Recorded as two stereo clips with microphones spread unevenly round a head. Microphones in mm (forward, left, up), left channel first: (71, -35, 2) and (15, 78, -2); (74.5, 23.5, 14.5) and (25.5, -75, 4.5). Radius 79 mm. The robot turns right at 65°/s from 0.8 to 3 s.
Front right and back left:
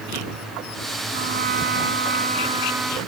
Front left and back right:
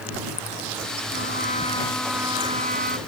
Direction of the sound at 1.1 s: 90° left.